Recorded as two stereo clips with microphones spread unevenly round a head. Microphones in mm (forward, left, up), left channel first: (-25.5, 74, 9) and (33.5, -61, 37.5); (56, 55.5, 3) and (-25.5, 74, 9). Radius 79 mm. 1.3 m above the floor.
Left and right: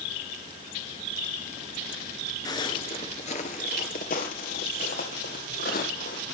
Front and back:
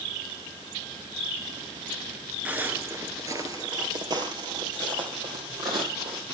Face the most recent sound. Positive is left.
turn(degrees=150)